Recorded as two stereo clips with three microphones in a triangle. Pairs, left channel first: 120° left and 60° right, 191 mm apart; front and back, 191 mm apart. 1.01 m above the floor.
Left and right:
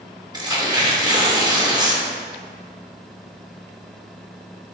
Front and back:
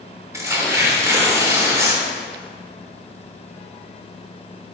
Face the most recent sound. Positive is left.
turn(degrees=-115)